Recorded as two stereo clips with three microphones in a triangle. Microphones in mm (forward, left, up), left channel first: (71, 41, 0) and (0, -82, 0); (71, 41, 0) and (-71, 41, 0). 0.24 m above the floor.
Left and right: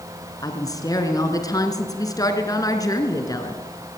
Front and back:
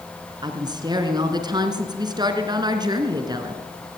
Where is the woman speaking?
120° left, 3 m.